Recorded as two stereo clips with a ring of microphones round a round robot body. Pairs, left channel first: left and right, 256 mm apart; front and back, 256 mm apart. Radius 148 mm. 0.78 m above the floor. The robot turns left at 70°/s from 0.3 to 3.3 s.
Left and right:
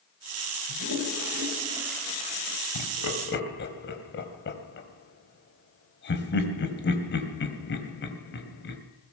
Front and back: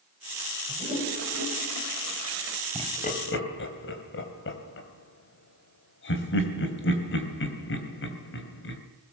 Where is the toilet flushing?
95° right, 4.5 m; by 2.6 s 135° left, 4.5 m.